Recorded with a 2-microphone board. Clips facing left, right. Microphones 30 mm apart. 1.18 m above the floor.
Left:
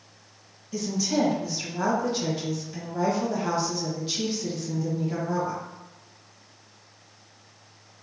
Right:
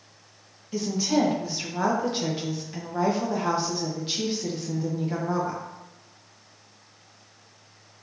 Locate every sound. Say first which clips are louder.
0.7 s a woman speaking: right 2 dB; 25° right (ahead or behind), 1.0 m